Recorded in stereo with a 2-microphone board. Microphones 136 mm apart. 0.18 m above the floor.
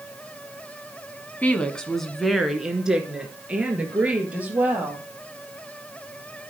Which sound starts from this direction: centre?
A woman speaking, at 1.4 s.